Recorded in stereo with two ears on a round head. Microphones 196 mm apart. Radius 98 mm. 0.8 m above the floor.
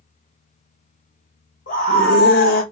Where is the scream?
40° left (ahead or behind), 0.9 m.